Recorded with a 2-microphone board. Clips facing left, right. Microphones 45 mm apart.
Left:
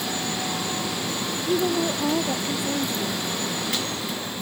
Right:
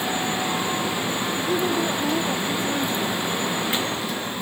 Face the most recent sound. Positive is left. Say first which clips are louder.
# left 1 dB
turn(degrees=15)  # may be behind; listen again after turning